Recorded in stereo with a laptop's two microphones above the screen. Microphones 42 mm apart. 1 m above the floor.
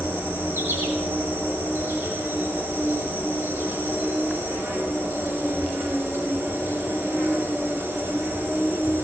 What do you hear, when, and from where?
0.0 s an insect: 65° right (ahead or behind), 7 m